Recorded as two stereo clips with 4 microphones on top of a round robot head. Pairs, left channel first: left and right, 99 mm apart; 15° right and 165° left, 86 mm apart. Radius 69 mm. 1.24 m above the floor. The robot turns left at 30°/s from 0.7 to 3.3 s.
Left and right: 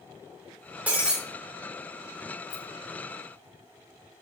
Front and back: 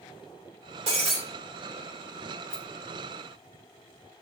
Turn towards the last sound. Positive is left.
turn(degrees=45)